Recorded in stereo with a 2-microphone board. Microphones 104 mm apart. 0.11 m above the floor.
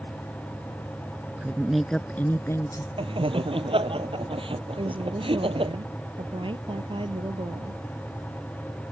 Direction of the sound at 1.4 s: 10° right (ahead or behind).